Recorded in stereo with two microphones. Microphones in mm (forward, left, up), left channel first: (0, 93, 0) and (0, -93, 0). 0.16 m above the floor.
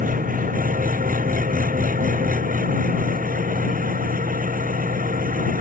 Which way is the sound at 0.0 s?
50° right (ahead or behind).